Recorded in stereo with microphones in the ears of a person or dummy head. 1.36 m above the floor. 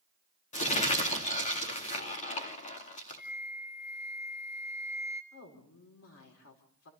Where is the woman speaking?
90° left, 4 m.